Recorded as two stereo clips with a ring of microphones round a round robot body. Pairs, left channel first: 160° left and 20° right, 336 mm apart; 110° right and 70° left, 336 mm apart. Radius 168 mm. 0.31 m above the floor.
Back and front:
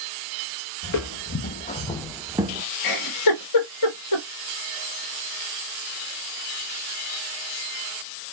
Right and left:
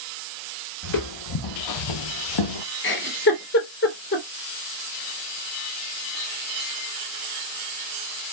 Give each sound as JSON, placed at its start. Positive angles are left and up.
{"t": 0.8, "sound": "footsteps", "azimuth_deg": -160, "distance_m": 1.0}
{"t": 2.8, "sound": "a giggle", "azimuth_deg": -170, "distance_m": 1.4}